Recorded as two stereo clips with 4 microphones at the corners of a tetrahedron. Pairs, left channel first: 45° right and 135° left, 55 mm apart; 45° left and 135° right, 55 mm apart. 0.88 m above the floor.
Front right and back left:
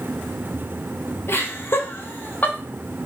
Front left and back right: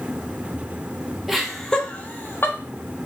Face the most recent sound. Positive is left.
turn(degrees=10)